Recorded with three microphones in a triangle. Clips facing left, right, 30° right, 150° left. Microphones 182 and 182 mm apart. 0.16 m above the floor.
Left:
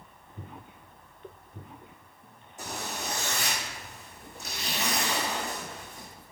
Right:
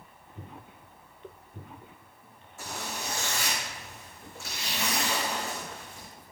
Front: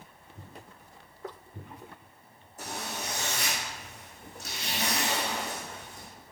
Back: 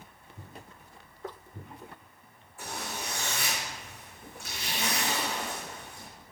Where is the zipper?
20° left, 2.5 m.